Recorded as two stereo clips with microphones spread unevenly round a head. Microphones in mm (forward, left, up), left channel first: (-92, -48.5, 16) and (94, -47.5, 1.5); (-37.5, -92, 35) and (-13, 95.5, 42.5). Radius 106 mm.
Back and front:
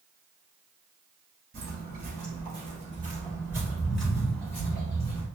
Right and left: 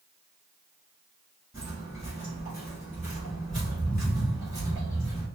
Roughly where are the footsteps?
Ahead.